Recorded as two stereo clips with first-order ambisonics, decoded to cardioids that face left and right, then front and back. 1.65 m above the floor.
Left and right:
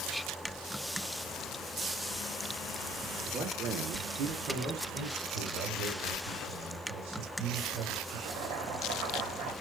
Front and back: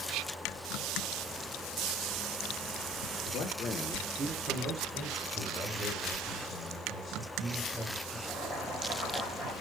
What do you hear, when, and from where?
3.2 s a man speaking: 35° right, 1.1 m; by 5.2 s 155° right, 2 m
5.3 s a man speaking: 85° right, 2.0 m
8.3 s boiling: 110° right, 1.8 m